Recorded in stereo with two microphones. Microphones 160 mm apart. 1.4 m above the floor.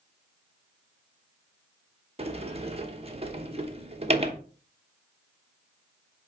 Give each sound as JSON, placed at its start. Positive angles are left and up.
{"t": 2.2, "sound": "a sliding door", "side_deg": -40, "distance_m": 1.0}